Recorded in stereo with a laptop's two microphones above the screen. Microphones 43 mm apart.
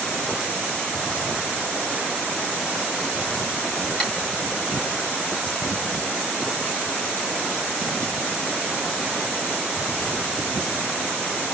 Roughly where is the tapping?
Left.